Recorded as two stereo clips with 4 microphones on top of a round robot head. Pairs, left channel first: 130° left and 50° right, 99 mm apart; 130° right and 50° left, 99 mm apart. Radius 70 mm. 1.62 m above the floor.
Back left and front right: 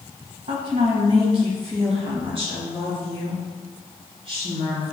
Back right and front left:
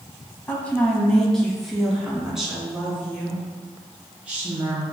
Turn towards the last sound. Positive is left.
turn(degrees=-20)